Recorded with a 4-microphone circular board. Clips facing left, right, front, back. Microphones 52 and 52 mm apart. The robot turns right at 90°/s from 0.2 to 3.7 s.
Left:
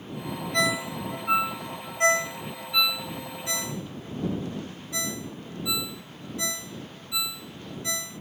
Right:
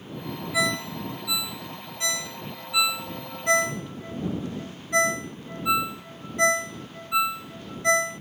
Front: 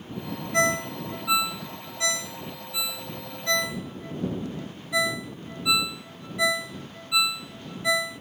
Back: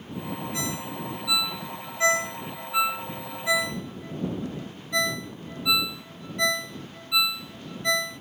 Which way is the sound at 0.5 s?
10° right.